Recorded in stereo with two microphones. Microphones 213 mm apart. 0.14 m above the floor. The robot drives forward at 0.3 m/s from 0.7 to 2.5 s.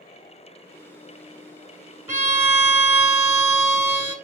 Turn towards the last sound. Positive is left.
turn(degrees=-10)  # may be behind; listen again after turning